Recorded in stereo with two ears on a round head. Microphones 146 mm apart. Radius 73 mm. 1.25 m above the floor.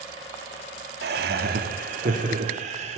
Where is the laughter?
70° right (ahead or behind), 2.5 m; by 3.0 s 45° right (ahead or behind), 4 m.